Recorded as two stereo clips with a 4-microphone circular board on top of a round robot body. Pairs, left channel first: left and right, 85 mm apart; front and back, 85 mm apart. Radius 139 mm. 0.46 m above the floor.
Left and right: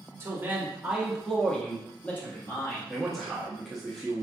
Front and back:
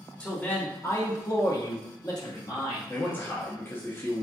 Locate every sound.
0.2 s a man speaking: 65° right, 0.9 m; by 2.8 s 35° left, 1.5 m
2.9 s a man speaking: straight ahead, 0.9 m